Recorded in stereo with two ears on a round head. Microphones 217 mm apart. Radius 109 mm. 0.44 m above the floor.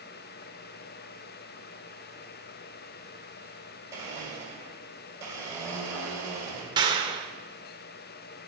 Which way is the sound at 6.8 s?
20° right (ahead or behind).